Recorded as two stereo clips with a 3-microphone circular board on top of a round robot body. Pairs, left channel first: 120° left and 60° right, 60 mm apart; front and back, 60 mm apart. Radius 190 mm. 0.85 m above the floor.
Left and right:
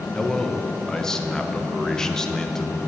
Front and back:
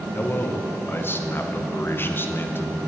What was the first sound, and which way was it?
A man speaking, 40° left.